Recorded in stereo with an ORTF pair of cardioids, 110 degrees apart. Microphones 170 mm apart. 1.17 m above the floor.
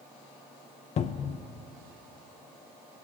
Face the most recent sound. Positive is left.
turn(degrees=40)